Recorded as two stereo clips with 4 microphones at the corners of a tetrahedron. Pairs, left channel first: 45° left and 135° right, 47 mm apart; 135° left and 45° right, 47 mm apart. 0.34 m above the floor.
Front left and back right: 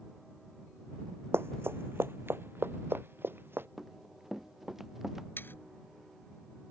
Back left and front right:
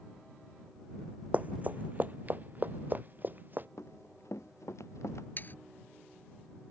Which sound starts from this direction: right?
Running footsteps, at 1.3 s.